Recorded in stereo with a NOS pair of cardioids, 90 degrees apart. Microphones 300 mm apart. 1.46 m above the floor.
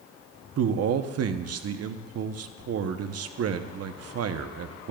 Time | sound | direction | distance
0.6 | a man speaking | 55° right | 0.9 m